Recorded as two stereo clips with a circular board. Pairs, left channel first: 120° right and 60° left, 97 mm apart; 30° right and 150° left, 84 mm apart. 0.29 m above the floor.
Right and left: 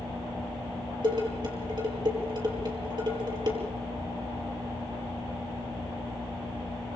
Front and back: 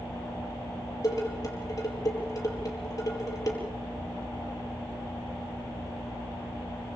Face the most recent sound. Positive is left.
turn(degrees=20)